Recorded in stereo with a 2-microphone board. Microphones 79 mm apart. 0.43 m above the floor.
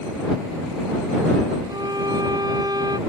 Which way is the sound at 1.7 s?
55° right (ahead or behind).